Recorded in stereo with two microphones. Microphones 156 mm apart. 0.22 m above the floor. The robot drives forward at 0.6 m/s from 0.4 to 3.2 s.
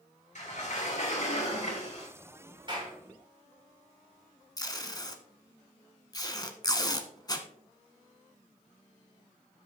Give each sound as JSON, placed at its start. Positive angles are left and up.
{"t": 0.3, "sound": "a sliding door", "side_deg": 55, "distance_m": 3.5}
{"t": 2.7, "sound": "a clap", "side_deg": -35, "distance_m": 5.0}
{"t": 4.6, "sound": "tape being pulled", "side_deg": 25, "distance_m": 1.1}